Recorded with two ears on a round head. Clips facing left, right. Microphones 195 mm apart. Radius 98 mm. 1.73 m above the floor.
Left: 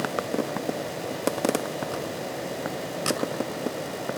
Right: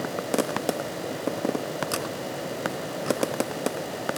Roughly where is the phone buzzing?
No phone buzzing in this recording.